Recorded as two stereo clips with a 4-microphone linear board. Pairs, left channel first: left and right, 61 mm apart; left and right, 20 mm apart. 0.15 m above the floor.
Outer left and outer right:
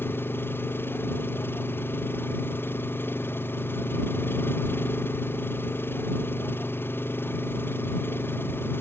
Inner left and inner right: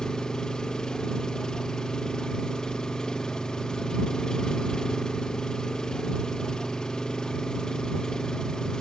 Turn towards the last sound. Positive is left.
turn(degrees=40)  # may be behind; listen again after turning